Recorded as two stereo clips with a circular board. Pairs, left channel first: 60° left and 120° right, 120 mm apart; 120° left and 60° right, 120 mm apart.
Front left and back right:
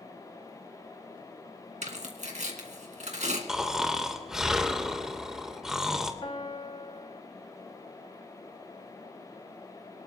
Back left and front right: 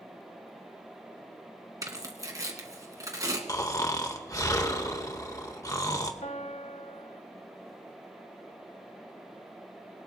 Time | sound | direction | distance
1.8 | tearing paper | 120° right | 2 m
3.5 | snoring | 155° left | 1.2 m
6.2 | a piano | 100° left | 1.1 m